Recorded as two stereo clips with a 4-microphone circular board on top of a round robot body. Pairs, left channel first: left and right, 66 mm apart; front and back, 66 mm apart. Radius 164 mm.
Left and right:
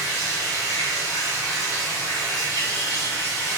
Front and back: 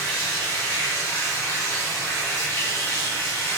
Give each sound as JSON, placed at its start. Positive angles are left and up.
{"t": 0.0, "sound": "running water", "azimuth_deg": -50, "distance_m": 1.8}